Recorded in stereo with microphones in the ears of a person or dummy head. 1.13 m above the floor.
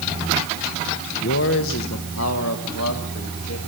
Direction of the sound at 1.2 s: 65° left (ahead or behind).